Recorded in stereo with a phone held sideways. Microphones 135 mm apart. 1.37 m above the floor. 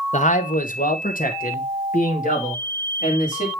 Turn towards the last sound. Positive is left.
turn(degrees=65)  # may be behind; listen again after turning